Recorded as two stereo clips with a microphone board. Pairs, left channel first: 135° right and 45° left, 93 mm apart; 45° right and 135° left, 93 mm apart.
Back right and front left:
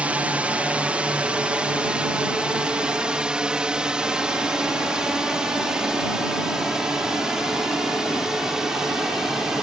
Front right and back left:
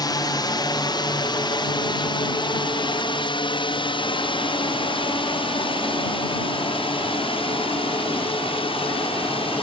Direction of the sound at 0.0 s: 25° right.